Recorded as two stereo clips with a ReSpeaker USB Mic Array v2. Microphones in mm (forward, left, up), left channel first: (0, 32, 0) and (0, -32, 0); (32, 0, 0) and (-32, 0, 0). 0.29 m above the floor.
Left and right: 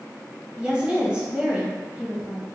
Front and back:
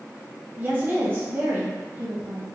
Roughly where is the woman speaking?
Behind right.